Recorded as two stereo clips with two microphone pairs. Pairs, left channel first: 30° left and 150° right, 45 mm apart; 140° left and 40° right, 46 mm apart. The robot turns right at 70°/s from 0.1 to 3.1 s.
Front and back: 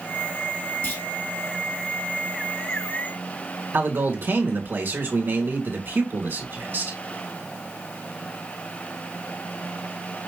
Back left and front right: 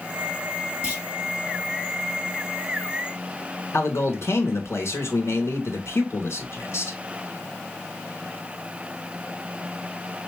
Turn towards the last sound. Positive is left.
turn(degrees=170)